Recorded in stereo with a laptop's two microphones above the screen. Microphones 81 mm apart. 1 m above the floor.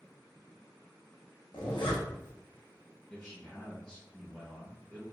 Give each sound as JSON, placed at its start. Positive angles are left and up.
{"t": 1.5, "sound": "a zipper", "side_deg": 85, "distance_m": 1.0}
{"t": 3.1, "sound": "a man speaking", "side_deg": 15, "distance_m": 0.6}